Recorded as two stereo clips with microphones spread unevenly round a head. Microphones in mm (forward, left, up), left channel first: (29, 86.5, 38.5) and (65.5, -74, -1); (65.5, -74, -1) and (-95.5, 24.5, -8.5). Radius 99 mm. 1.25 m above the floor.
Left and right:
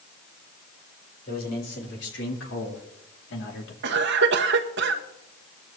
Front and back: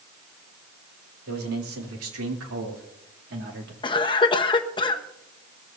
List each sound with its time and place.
1.3 s a man speaking: 150° left, 3.5 m; by 3.7 s 100° left, 2 m
3.8 s a cough: 100° right, 1.3 m